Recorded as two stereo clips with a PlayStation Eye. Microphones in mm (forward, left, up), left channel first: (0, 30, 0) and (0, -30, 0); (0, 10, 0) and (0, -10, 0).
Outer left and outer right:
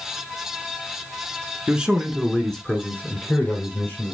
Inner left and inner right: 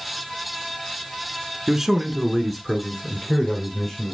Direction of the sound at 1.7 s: 15° right (ahead or behind).